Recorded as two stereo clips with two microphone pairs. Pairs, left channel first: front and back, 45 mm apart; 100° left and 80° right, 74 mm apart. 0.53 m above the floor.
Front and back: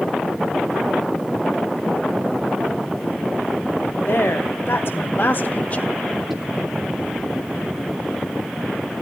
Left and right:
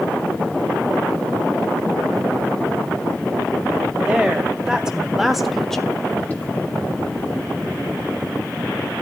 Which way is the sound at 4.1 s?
5° right.